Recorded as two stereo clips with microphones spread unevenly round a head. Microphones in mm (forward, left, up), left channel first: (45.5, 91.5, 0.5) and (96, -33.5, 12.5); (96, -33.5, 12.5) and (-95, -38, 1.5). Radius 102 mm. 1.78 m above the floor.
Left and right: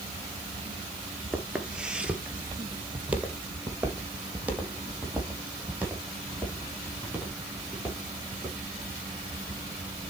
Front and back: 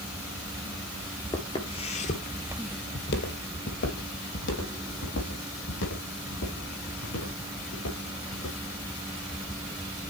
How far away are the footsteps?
About 1.8 m.